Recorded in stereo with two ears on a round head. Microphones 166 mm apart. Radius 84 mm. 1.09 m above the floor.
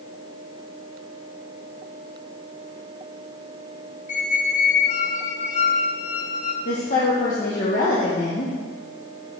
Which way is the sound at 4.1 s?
40° left (ahead or behind).